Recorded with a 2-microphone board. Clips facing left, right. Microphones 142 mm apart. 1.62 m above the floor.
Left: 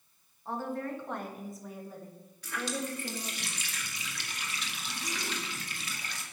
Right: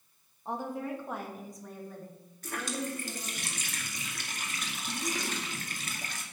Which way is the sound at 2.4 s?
45° right (ahead or behind).